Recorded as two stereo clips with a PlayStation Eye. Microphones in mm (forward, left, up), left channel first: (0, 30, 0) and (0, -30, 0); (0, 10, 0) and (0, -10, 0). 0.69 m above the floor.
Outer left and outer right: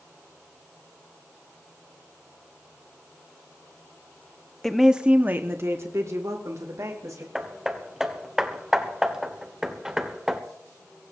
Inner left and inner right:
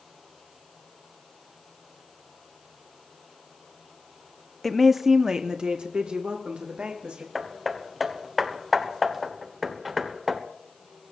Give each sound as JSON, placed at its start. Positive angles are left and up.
{"t": 4.6, "sound": "a woman speaking", "side_deg": 5, "distance_m": 0.8}
{"t": 7.3, "sound": "hammering", "side_deg": -10, "distance_m": 1.4}